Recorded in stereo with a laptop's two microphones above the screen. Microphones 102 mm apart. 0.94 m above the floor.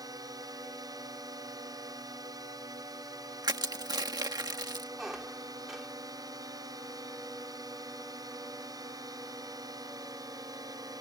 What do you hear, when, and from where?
0.0 s a drone: 40° right (ahead or behind)
3.4 s crushing: 45° right (ahead or behind)
5.0 s a squeak: 5° right (ahead or behind)